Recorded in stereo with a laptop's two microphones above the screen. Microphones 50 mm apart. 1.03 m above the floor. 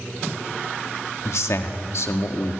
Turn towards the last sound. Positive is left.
turn(degrees=70)  # may be behind; listen again after turning